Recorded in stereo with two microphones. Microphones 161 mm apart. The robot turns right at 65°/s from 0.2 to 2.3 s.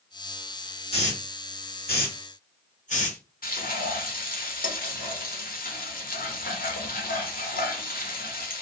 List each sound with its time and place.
0.9 s a hiss: 40° left (ahead or behind), 1.3 m; by 3.2 s 50° left (ahead or behind), 1.3 m
3.4 s frying: 60° left (ahead or behind), 1.0 m